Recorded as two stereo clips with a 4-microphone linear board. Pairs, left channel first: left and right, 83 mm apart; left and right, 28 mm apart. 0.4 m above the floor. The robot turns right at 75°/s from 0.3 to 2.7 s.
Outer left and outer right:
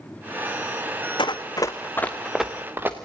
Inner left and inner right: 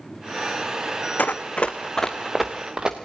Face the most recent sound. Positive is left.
turn(degrees=-25)  # may be behind; listen again after turning